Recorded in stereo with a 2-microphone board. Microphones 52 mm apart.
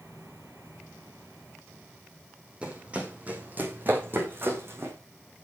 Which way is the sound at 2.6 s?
20° right (ahead or behind).